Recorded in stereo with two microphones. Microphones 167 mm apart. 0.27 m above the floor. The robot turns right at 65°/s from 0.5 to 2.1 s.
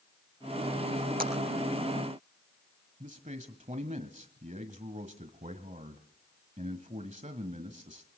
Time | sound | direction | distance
1.2 | a clap | 55° right (ahead or behind) | 4.5 m
3.0 | a man speaking | 45° right (ahead or behind) | 1.2 m